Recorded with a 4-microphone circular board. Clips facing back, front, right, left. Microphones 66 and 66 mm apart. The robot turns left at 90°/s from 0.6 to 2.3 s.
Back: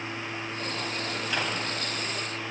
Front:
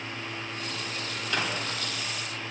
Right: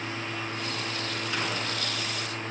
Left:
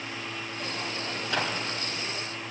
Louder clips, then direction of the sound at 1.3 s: Front 1 dB, left 2 dB; 105° left.